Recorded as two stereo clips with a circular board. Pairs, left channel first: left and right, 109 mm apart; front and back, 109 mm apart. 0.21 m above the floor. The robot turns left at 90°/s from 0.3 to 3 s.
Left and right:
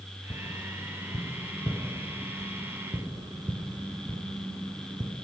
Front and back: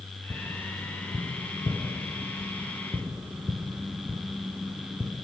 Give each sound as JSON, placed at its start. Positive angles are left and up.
{"t": 0.3, "sound": "tapping", "azimuth_deg": 140, "distance_m": 1.5}